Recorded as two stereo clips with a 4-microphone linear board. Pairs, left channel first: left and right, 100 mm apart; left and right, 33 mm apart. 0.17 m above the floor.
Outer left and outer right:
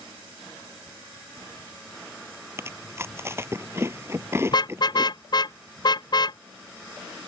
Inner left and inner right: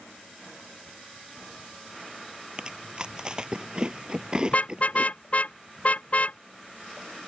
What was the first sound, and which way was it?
Chewing, 25° right (ahead or behind).